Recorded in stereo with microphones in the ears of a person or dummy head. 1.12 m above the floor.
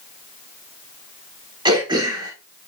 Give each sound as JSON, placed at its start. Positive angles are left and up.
{"t": 1.6, "sound": "throat clearing", "side_deg": -20, "distance_m": 2.5}